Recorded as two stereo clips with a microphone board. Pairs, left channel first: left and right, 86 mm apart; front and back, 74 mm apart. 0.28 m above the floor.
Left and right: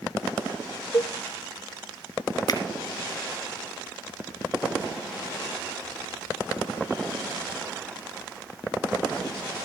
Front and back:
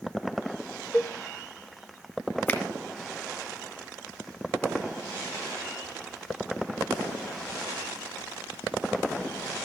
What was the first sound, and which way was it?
A cowbell, 45° left.